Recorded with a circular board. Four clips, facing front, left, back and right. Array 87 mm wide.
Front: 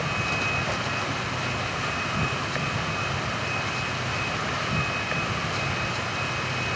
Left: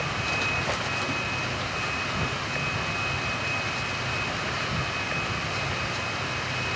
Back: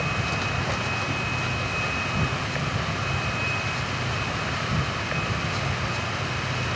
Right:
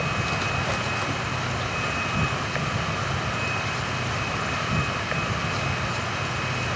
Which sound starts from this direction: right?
An insect, at 0.0 s.